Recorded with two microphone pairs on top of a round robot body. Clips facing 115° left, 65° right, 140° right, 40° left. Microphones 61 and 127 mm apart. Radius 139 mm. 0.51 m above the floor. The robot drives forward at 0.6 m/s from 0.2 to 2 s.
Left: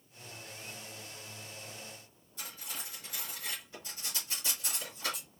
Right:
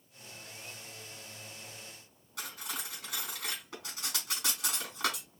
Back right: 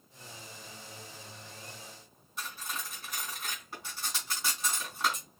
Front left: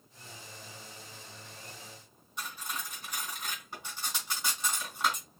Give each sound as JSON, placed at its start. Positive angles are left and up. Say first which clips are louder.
{"t": 2.4, "sound": "cutlery clinking", "louder": "right 4 dB, front left 1 dB", "azimuth_deg": -50, "distance_m": 4.0}